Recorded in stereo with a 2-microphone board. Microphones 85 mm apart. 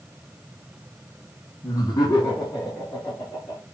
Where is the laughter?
40° left (ahead or behind), 1.7 m; by 3.6 s 45° left (ahead or behind), 3.5 m.